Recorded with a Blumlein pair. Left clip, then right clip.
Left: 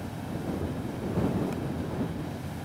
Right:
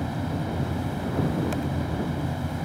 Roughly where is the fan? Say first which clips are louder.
Right 6 dB; ahead right.